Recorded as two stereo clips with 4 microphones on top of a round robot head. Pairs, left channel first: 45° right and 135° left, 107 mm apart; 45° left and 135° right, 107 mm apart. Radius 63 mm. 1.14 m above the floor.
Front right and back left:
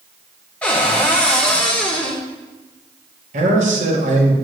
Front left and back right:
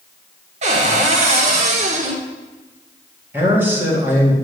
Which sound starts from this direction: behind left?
A man speaking, at 3.3 s.